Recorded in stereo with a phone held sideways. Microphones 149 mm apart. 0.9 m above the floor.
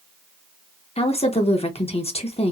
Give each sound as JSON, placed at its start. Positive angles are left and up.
{"t": 1.0, "sound": "a woman speaking", "side_deg": 45, "distance_m": 0.7}